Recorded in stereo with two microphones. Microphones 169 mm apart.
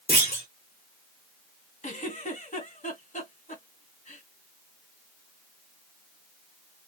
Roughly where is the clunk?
Left.